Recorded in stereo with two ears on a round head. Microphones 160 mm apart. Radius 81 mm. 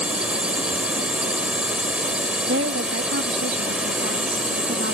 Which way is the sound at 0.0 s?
5° right (ahead or behind).